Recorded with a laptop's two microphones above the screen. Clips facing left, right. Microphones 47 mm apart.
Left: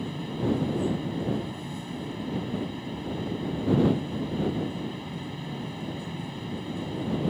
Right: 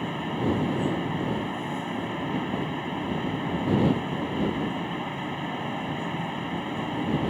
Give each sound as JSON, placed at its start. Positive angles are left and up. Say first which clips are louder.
{"t": 0.0, "sound": "a fan", "louder": "right 3 dB", "side_deg": -35}